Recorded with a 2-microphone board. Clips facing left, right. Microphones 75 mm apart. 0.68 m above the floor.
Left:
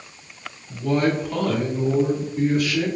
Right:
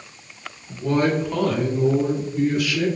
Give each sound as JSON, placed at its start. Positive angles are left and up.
{"t": 0.7, "sound": "a woman speaking", "side_deg": -25, "distance_m": 1.5}